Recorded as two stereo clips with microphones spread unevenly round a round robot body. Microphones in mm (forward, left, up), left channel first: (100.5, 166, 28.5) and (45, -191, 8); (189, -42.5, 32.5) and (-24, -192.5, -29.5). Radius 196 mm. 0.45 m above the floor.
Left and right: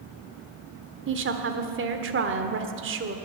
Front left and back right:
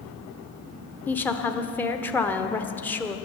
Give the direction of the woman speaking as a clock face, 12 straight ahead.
2 o'clock.